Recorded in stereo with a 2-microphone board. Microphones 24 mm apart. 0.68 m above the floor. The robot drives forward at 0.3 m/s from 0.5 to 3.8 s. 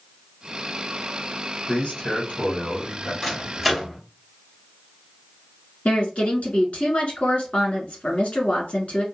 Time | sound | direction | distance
1.7 | a man speaking | 65° left (ahead or behind) | 1.8 m
3.2 | a microwave | centre (ahead or behind) | 1.3 m
5.8 | a woman speaking | 55° left (ahead or behind) | 1.4 m